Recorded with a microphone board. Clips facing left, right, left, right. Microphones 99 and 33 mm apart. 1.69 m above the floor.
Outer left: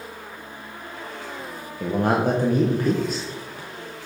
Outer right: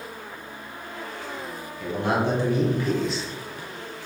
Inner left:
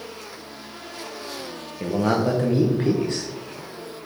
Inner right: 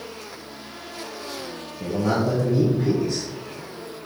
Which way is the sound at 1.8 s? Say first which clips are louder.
Outer left 3 dB, inner left 1 dB; 45° left (ahead or behind).